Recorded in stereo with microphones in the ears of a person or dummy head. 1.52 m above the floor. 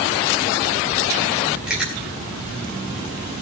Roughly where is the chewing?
Centre.